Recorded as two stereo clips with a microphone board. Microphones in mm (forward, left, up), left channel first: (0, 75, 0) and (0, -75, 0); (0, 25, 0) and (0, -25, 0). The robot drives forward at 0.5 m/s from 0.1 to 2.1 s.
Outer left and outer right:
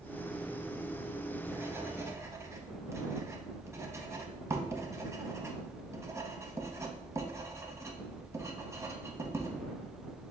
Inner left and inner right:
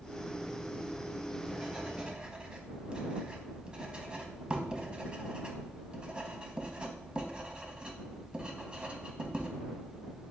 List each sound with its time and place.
0.9 s writing: 10° right (ahead or behind), 1.1 m; by 9.5 s 20° right (ahead or behind), 0.7 m